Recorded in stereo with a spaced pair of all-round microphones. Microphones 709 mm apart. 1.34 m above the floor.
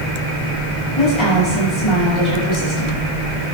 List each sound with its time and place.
1.0 s a woman speaking: 45° left (ahead or behind), 6.5 m